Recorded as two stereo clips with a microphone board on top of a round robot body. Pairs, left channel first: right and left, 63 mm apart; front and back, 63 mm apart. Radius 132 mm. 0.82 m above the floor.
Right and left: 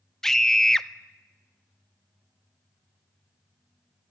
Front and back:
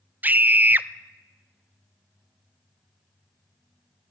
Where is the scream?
165° right, 0.8 m.